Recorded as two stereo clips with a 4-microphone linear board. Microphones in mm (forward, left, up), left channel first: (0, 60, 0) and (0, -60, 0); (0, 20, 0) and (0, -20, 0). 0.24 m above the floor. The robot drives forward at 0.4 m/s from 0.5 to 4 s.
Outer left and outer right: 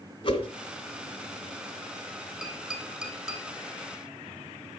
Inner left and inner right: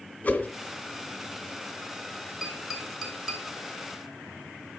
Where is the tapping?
10° right (ahead or behind), 3 m; by 3.4 s 5° right (ahead or behind), 3 m.